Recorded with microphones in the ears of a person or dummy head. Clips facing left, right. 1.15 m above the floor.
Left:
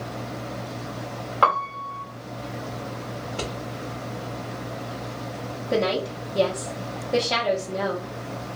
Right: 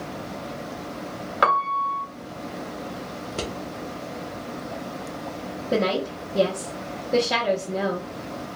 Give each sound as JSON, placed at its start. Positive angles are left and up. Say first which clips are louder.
{"t": 1.4, "sound": "a piano", "louder": "right 1 dB", "side_deg": -30, "distance_m": 1.1}
{"t": 3.2, "sound": "scissors", "louder": "right 1 dB", "side_deg": -55, "distance_m": 1.0}
{"t": 5.7, "sound": "a woman speaking", "louder": "even", "side_deg": -20, "distance_m": 0.9}